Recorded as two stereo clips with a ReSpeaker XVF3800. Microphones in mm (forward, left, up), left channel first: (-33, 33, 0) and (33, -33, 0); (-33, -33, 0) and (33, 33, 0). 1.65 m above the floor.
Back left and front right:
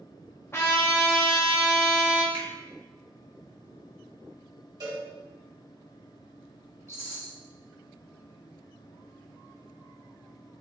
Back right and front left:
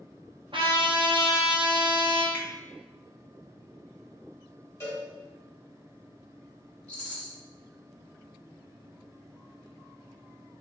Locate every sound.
0.5 s a trumpet: 70° left, 0.8 m
2.3 s a finger snap: 65° right, 1.5 m
4.8 s a cowbell: 75° right, 1.8 m
6.9 s a rattle: 155° left, 1.3 m